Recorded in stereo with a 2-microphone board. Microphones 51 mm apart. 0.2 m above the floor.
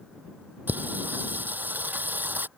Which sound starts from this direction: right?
Singing, at 0.7 s.